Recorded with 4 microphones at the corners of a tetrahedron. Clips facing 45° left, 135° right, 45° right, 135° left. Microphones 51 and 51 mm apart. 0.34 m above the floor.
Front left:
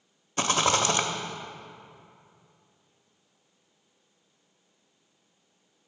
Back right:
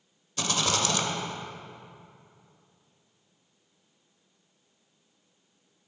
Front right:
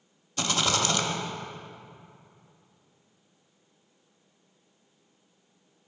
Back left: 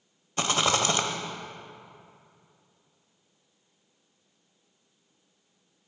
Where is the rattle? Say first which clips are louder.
Front left 4 dB, back left 2 dB; 85° left, 0.5 m.